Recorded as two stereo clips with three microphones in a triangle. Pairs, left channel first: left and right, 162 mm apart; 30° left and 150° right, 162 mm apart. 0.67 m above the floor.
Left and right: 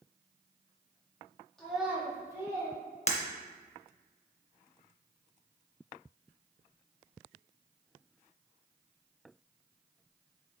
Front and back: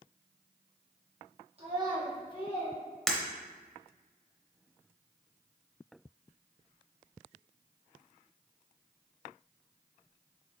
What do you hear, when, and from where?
1.6 s a child speaking: 175° left, 0.8 m; by 2.8 s 20° right, 1.4 m
3.1 s breaking glass: 115° left, 0.5 m